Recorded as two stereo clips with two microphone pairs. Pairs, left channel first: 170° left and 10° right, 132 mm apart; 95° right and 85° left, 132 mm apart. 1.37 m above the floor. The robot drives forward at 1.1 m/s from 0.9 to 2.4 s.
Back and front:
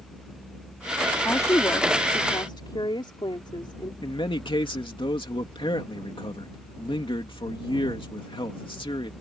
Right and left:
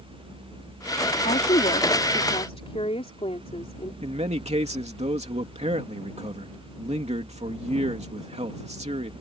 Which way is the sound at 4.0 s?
120° left.